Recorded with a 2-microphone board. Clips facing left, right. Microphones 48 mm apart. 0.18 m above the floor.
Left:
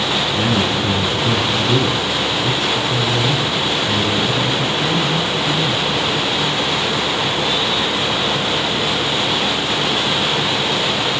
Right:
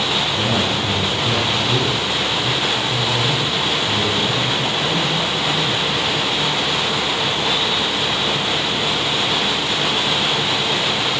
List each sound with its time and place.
0.3 s a man speaking: 75° left (ahead or behind), 7 m